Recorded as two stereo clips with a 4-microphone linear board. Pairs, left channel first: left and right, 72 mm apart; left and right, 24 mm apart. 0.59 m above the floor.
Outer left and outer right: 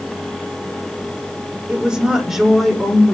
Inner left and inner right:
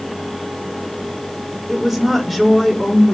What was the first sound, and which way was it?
A woman speaking, 15° right (ahead or behind).